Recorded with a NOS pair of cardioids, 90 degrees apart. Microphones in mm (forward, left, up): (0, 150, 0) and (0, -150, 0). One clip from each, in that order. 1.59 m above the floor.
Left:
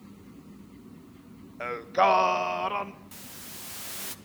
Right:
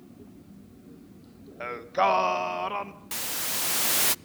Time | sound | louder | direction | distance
1.6 | singing | left 1 dB | 5° left | 1.7 m
3.1 | a hiss | right 13 dB | 65° right | 0.6 m